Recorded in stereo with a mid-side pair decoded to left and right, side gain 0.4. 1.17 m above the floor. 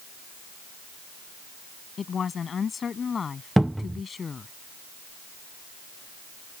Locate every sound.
2.0 s a woman speaking: 50° left; by 4.5 s 40° left
3.6 s a cupboard door: 5° right